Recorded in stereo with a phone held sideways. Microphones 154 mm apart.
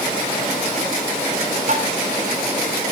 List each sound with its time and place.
1.7 s tapping: 55° right (ahead or behind), 3.5 m